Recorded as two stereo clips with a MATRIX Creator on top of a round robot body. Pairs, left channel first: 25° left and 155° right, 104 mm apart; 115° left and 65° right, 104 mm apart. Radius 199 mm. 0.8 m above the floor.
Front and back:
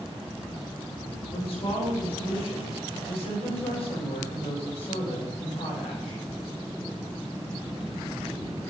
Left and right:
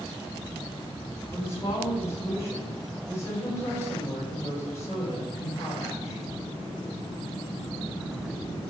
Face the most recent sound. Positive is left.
turn(degrees=50)